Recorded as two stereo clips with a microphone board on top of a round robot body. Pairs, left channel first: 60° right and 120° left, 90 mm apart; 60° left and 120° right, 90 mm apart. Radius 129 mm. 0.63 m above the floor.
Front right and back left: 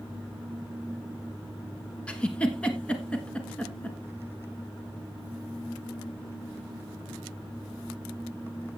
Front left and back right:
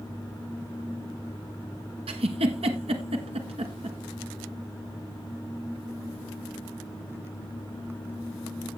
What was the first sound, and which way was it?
A giggle, 140° right.